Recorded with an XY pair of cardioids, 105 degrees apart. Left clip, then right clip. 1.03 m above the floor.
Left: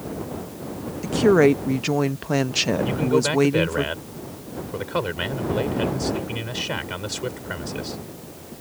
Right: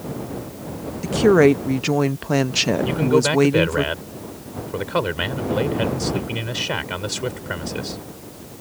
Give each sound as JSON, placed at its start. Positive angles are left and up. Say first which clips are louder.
{"t": 1.0, "sound": "a woman speaking", "louder": "right 2 dB", "azimuth_deg": -5}
{"t": 2.9, "sound": "a man speaking", "louder": "right 3 dB", "azimuth_deg": -15}